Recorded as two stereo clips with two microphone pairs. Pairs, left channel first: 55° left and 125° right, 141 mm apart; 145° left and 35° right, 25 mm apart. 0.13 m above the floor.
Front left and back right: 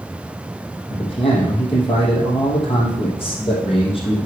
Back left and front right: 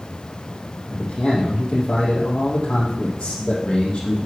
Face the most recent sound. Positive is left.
turn(degrees=100)